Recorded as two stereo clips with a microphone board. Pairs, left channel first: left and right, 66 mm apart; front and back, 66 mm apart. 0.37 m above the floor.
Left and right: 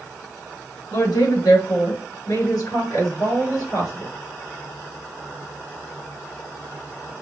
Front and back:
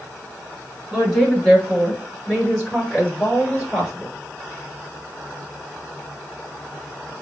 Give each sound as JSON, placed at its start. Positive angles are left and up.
{"t": 0.9, "sound": "a woman speaking", "azimuth_deg": 85, "distance_m": 3.5}